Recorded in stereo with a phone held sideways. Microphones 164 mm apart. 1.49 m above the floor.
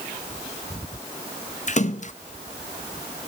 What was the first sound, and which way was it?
A splash, 45° left (ahead or behind).